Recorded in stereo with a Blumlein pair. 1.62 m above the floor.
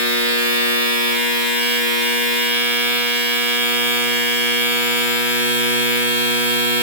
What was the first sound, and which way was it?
A machine running, 65° right.